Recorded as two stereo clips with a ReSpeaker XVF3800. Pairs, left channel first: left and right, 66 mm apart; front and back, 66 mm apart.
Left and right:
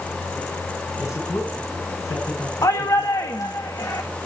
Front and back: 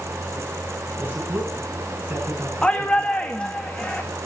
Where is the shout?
70° left, 1.8 m.